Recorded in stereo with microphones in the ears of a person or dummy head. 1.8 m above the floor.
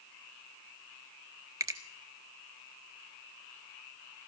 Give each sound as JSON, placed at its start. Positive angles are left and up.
{"t": 1.6, "sound": "a finger snap", "side_deg": -20, "distance_m": 0.8}